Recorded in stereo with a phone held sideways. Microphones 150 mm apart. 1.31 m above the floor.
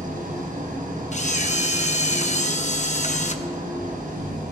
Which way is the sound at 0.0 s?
70° right (ahead or behind).